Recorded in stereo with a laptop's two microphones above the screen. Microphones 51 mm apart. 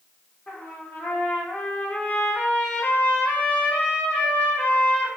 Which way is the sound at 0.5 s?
30° left (ahead or behind).